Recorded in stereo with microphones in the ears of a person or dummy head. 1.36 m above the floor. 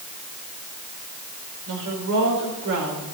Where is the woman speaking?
75° right (ahead or behind), 5 m.